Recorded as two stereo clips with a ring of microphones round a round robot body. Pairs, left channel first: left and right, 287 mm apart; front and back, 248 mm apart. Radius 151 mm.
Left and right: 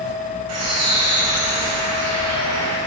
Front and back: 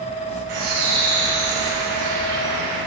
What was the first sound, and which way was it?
A bird, 125° right.